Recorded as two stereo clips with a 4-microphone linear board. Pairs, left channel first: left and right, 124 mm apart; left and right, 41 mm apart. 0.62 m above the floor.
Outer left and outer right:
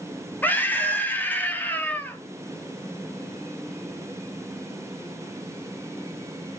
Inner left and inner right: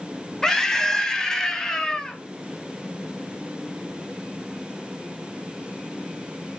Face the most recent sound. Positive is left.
turn(degrees=15)  # may be behind; listen again after turning